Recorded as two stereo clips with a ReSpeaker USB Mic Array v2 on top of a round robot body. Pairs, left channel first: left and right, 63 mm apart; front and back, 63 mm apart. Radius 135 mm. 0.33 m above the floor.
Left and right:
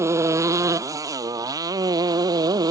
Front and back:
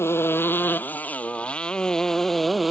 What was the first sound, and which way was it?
A motorcycle, 50° right.